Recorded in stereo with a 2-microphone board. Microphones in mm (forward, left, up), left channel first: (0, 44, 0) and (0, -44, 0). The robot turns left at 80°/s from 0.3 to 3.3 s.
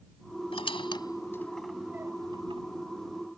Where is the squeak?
80° left; by 2.6 s 75° right (ahead or behind).